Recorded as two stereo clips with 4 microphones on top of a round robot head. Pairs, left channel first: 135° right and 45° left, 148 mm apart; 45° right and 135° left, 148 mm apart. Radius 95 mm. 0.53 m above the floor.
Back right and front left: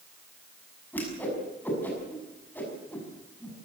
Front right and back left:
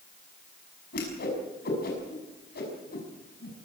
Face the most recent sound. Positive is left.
turn(degrees=-60)